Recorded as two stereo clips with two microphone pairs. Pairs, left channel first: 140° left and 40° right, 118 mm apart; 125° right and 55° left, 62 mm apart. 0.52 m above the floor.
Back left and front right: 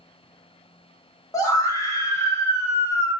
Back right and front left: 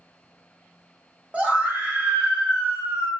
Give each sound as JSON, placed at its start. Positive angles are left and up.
{"t": 1.3, "sound": "a scream", "azimuth_deg": 100, "distance_m": 0.9}